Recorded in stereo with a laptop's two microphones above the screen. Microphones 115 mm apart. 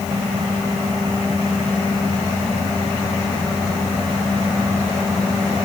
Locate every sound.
Only background noise.